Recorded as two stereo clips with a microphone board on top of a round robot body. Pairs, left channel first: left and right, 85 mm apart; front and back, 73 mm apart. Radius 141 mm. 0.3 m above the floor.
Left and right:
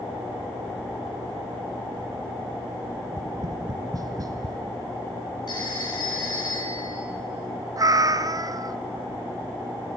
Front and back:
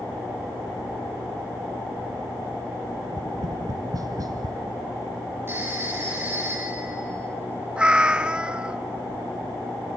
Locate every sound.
3.0 s tapping: 140° right, 1.0 m
5.5 s a phone ringing: 120° left, 4.5 m
7.8 s a cat meowing: 110° right, 0.7 m